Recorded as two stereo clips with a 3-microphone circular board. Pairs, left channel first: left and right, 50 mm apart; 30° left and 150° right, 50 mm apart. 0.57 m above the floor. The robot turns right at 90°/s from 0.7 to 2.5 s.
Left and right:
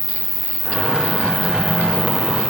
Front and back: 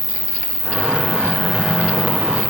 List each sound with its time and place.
0.0 s an insect: 115° left; by 2.5 s 80° right